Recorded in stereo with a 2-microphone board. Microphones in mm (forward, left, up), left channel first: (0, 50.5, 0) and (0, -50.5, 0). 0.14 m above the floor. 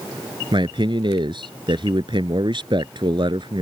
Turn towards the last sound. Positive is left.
turn(degrees=-50)  # may be behind; listen again after turning